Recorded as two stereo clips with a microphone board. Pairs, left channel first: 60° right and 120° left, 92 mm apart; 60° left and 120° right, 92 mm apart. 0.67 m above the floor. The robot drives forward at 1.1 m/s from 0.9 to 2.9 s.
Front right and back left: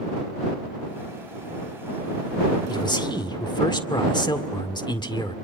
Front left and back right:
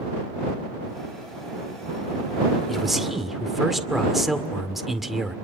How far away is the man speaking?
About 2 m.